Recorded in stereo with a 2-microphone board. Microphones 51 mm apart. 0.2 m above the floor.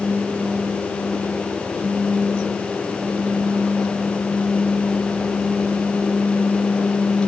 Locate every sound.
Only background noise.